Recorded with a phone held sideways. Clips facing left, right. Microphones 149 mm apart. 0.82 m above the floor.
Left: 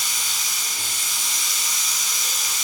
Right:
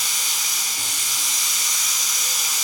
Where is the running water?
85° right, 4 m.